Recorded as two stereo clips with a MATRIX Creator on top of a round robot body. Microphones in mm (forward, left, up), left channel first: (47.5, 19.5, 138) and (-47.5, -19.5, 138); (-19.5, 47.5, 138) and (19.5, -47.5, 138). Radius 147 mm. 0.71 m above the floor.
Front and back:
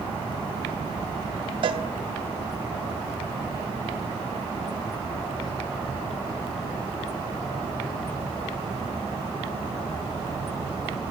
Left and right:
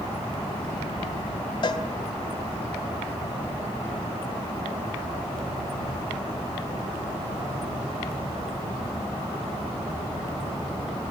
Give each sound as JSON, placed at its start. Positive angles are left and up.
{"t": 1.6, "sound": "a cowbell", "azimuth_deg": 160, "distance_m": 0.7}